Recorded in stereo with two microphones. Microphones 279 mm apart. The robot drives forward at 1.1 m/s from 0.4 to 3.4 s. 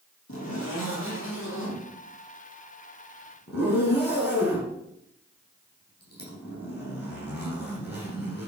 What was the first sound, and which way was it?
A zipper, 55° left (ahead or behind).